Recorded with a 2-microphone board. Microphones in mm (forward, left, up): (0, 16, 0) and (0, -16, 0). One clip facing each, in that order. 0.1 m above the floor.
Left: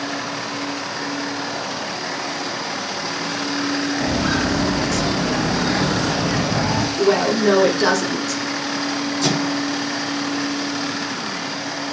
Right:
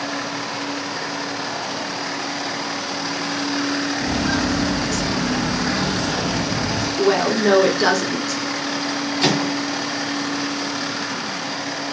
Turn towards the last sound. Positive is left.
turn(degrees=-55)  # may be behind; listen again after turning